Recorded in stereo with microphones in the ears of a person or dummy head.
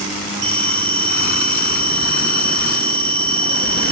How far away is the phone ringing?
About 1.4 m.